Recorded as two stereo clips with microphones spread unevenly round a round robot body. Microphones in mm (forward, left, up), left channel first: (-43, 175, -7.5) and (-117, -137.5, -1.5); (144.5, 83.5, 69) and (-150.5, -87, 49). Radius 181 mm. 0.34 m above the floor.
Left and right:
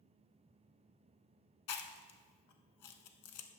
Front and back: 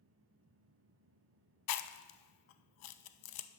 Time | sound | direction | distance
1.7 | chewing | 30° left | 0.6 m